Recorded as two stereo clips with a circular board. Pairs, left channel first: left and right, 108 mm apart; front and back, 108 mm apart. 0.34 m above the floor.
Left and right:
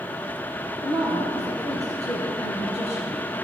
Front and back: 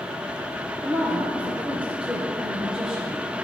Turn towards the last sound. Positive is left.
turn(degrees=95)